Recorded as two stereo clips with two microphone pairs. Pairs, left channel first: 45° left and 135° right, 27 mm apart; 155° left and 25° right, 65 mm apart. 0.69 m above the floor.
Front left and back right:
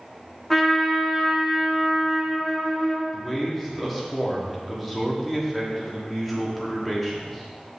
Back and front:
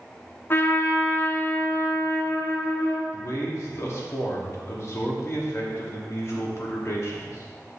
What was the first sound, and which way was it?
A trumpet, 120° left.